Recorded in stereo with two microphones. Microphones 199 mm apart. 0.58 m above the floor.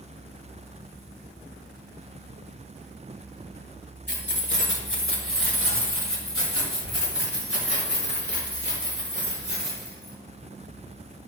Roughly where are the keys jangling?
Left.